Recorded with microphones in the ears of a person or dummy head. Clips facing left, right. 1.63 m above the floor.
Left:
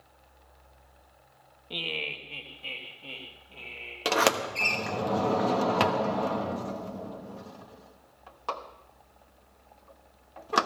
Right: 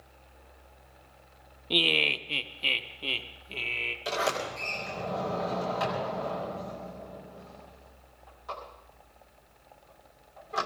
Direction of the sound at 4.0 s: 65° left (ahead or behind).